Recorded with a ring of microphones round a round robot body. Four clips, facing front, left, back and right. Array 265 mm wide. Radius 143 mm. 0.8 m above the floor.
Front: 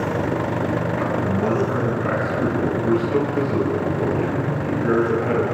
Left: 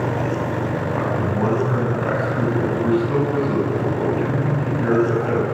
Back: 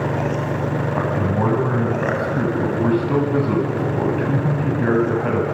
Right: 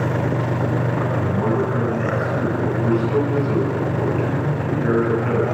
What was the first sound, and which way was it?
A man speaking, 170° left.